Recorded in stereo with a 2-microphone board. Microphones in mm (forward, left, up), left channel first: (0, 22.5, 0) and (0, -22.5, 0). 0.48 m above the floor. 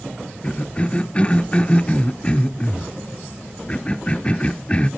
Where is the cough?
25° left (ahead or behind), 0.9 m.